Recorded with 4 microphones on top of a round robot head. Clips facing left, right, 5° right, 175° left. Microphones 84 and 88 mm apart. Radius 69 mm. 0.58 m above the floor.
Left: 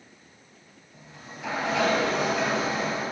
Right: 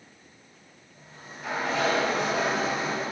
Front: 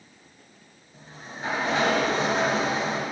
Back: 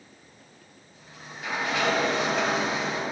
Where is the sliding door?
50° left, 2.5 m.